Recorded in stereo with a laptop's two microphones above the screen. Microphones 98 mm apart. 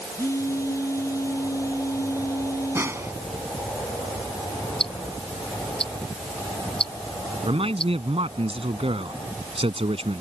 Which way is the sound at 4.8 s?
65° left (ahead or behind).